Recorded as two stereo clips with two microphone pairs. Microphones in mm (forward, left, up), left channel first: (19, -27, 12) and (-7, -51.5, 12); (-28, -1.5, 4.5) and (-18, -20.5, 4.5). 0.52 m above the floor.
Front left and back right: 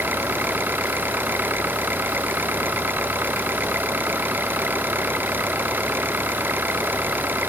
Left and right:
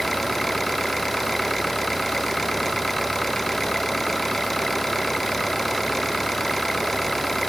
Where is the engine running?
155° right.